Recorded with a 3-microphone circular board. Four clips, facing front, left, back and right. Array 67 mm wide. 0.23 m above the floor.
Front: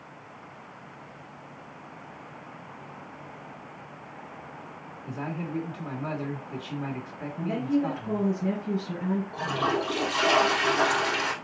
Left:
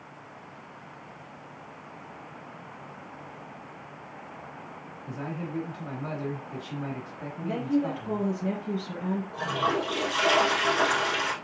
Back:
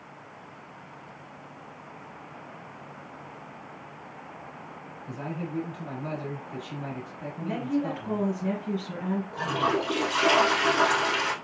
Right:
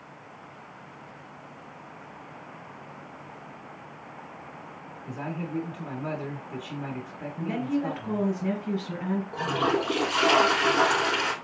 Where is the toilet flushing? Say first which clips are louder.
Right 2 dB, back 3 dB; 105° right, 2.5 m.